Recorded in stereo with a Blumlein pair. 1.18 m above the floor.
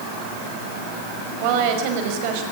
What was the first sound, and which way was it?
A woman speaking, 45° right.